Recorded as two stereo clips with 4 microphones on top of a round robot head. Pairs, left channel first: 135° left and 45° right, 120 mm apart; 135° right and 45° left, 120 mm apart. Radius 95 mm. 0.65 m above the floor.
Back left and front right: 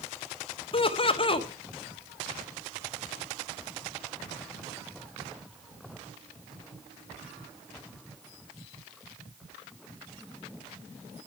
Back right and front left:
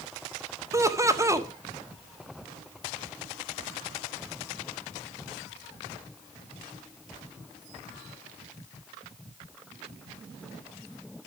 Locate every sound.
0.7 s laughter: 105° left, 1.7 m